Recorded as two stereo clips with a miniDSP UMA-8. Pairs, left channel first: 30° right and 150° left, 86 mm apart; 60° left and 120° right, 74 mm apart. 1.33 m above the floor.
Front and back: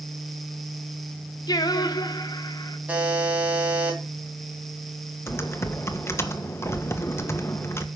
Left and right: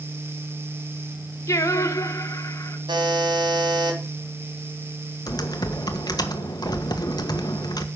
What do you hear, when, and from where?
1.5 s singing: 10° left, 1.5 m
2.9 s a buzzer: 135° right, 3.5 m
5.3 s typing on a keyboard: 30° left, 1.4 m